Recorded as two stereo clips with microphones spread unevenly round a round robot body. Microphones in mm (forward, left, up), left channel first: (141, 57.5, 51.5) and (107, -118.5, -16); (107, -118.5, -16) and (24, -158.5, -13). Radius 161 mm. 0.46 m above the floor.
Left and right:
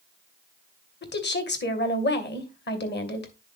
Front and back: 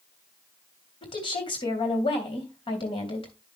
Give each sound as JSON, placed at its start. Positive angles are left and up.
{"t": 1.0, "sound": "a woman speaking", "azimuth_deg": 45, "distance_m": 2.5}